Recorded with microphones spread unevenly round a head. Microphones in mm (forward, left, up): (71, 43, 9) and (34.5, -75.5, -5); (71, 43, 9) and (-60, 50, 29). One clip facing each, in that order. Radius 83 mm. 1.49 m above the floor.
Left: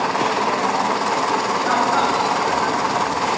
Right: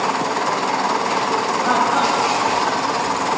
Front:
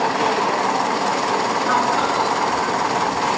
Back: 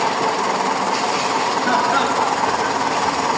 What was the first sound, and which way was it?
Laughter, 170° left.